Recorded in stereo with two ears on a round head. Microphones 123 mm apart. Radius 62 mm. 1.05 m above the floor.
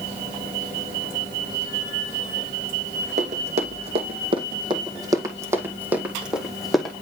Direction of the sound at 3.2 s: 50° right (ahead or behind).